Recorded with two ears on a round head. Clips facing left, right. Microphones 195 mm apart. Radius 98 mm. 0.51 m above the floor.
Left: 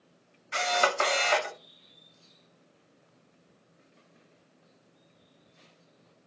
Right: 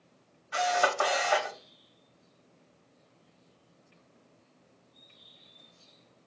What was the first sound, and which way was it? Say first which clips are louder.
A camera shutter: right 1 dB; 30° left (ahead or behind).